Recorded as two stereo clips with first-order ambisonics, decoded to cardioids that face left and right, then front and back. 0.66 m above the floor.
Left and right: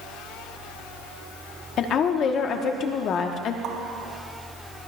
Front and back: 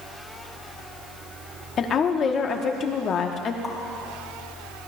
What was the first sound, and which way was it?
A woman speaking, 50° left.